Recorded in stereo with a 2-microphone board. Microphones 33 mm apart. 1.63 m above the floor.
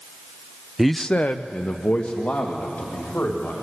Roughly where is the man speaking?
Centre.